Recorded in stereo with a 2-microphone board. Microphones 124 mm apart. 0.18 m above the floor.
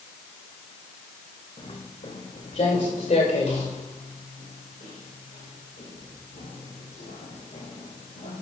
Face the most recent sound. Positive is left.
turn(degrees=75)  # may be behind; listen again after turning